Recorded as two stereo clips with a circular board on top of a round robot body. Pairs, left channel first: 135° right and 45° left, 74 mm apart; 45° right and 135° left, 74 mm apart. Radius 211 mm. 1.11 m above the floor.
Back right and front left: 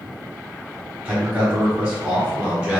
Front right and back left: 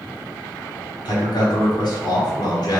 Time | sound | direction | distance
1.1 | a man speaking | 30° right | 1.0 m